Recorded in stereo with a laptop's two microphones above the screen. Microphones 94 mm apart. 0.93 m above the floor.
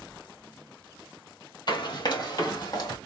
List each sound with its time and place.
1.7 s running footsteps: 50° left (ahead or behind), 1.5 m; by 3.0 s 40° left (ahead or behind), 2 m